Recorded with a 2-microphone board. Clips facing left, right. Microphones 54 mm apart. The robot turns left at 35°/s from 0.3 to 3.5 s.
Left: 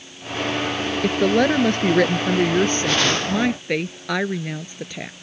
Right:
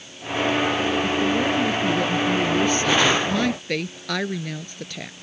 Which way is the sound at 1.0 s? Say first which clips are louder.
Left 4 dB; 100° left.